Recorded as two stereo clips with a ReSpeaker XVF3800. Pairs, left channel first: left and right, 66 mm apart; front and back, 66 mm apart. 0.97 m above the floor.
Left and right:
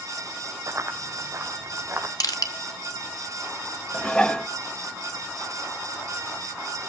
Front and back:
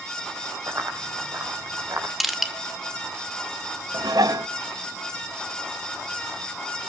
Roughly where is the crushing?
Left.